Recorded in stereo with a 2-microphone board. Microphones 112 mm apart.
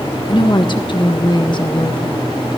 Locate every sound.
0.3 s a woman speaking: 45° left (ahead or behind), 1.4 m